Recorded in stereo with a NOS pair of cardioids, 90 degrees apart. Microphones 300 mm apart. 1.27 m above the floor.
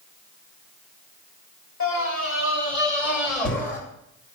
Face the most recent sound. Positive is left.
turn(degrees=35)